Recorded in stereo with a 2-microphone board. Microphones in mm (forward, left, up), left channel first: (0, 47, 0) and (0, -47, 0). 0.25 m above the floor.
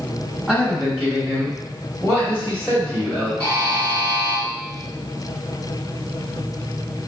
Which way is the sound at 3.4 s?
20° left (ahead or behind).